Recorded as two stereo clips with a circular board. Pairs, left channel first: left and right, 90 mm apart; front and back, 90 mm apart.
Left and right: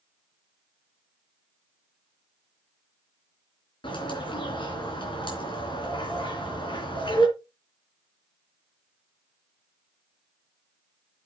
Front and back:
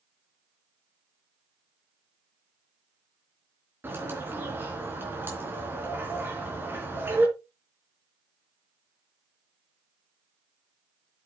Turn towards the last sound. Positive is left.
turn(degrees=115)